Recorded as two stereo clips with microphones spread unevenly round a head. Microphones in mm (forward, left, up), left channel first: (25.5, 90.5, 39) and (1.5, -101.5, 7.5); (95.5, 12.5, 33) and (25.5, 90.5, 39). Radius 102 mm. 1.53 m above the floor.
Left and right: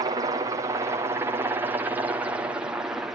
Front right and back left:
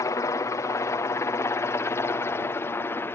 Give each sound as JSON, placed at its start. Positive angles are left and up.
{"t": 0.0, "sound": "a helicopter", "azimuth_deg": -65}